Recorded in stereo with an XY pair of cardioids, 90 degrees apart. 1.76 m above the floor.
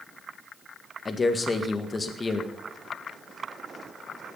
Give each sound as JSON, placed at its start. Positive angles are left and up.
{"t": 1.1, "sound": "a man speaking", "azimuth_deg": 30, "distance_m": 1.8}